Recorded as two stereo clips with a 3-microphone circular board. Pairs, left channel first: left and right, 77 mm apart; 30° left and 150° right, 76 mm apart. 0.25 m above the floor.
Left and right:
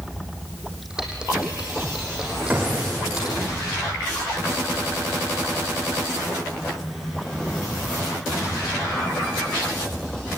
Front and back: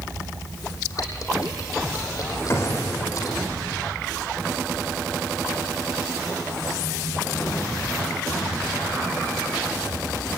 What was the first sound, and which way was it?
Typing on a keyboard, 10° right.